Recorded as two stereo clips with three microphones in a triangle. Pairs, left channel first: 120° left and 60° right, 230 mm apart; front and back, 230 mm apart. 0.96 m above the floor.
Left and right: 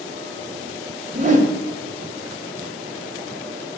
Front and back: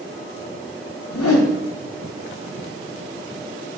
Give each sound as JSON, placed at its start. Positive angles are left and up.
{"t": 1.1, "sound": "a whoosh", "azimuth_deg": 0, "distance_m": 0.6}